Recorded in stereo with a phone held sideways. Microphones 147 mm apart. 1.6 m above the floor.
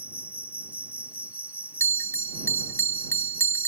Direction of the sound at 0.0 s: 10° right (ahead or behind).